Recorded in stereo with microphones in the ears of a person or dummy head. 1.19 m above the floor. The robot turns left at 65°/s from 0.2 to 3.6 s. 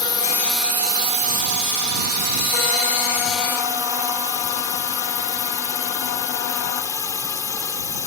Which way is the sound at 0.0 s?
30° left.